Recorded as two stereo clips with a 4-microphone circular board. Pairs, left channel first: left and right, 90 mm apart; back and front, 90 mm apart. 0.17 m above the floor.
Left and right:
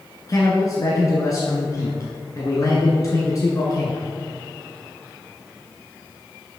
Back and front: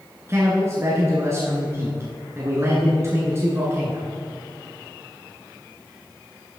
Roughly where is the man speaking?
Ahead left.